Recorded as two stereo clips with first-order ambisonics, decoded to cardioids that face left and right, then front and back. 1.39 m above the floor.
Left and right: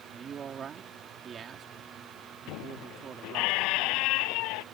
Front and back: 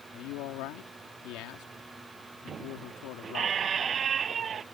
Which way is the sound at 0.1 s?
25° right.